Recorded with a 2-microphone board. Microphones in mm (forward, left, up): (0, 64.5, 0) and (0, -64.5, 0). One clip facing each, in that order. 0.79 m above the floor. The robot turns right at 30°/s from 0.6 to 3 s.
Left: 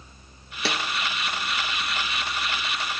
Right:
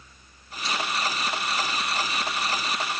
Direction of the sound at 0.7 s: 70° left (ahead or behind).